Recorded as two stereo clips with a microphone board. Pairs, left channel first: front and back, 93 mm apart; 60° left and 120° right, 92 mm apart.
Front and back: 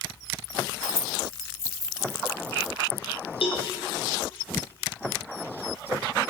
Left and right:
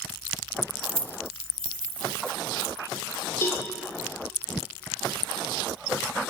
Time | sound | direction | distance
0.8 | keys jangling | 115° right | 0.7 m
3.4 | a cowbell | straight ahead | 8 m